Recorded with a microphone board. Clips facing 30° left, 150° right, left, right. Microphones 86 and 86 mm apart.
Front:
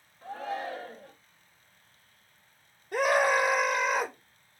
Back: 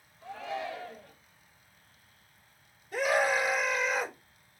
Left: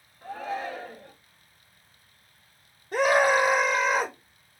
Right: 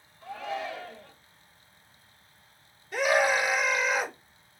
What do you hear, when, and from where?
0.2 s a shout: 60° left, 3 m
2.9 s a scream: 55° left, 5.5 m